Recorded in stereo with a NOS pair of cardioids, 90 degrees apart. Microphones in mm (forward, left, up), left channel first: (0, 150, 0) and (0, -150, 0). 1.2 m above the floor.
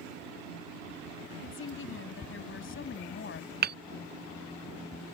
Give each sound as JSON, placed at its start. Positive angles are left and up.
{"t": 1.4, "sound": "a woman speaking", "azimuth_deg": 40}
{"t": 3.6, "sound": "hammering", "azimuth_deg": -35}